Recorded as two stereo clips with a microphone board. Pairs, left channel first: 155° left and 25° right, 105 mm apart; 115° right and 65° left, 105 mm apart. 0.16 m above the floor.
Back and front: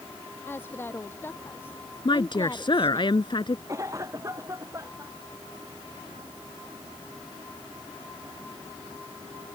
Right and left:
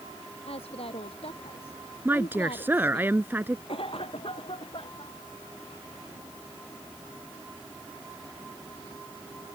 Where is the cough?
80° right.